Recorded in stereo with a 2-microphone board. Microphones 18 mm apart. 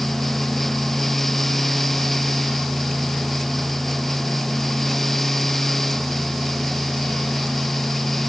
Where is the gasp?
No gasp in this recording.